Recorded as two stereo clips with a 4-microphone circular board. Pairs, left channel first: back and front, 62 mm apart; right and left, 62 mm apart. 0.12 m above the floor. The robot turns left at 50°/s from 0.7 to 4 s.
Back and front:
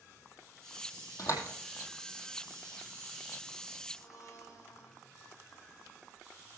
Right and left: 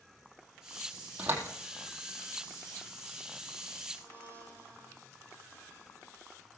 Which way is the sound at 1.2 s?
155° left.